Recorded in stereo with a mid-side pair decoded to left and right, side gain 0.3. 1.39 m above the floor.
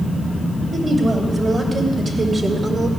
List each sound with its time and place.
0.7 s a woman speaking: 55° right, 3.5 m; by 2.9 s 60° right, 2.5 m